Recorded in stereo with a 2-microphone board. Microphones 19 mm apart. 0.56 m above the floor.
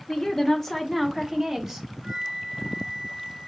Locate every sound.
0.1 s a woman speaking: 25° left (ahead or behind), 1.2 m; by 1.9 s 25° right (ahead or behind), 1.5 m
2.0 s a flute: 45° right (ahead or behind), 2.5 m